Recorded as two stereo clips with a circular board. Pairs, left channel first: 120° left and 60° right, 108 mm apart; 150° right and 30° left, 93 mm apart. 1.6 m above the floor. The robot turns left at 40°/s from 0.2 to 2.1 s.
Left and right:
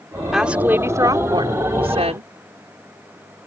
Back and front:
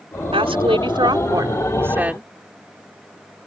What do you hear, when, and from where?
0.3 s a woman speaking: 25° left; by 2.3 s 45° right